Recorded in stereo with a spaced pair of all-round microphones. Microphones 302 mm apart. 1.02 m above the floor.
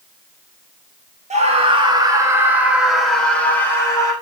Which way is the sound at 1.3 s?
20° right (ahead or behind).